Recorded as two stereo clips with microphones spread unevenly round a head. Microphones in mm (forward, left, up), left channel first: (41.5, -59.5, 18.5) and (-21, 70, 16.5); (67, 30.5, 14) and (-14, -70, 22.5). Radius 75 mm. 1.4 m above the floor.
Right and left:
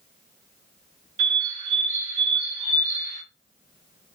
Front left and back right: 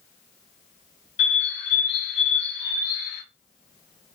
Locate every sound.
1.2 s a bird: 80° left, 1.2 m